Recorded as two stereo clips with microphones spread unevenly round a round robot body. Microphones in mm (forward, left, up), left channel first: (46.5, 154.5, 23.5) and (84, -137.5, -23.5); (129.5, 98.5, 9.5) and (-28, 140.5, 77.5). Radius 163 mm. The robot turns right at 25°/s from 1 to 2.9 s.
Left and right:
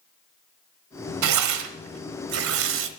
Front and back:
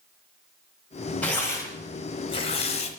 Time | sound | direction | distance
1.2 | tearing paper | 85° right | 0.9 m